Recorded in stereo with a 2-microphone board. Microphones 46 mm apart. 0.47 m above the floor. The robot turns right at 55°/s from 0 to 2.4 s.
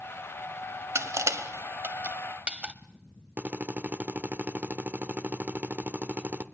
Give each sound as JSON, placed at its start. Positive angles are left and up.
{"t": 0.9, "sound": "crushing", "side_deg": -70, "distance_m": 1.1}
{"t": 3.4, "sound": "a drill", "side_deg": -40, "distance_m": 1.2}